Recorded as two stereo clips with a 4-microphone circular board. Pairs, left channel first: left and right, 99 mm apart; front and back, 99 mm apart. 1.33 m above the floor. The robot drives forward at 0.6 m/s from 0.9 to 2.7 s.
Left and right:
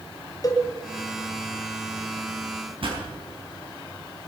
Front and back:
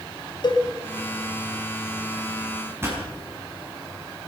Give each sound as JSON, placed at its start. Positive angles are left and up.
{"t": 0.4, "sound": "a cowbell", "azimuth_deg": 40, "distance_m": 1.6}
{"t": 2.8, "sound": "a pop", "azimuth_deg": -115, "distance_m": 5.5}